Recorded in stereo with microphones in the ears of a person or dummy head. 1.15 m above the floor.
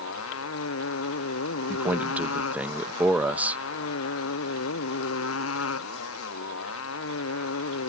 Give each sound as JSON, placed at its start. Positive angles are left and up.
{"t": 0.0, "sound": "a motorcycle", "side_deg": 85}
{"t": 1.7, "sound": "a man speaking", "side_deg": -5}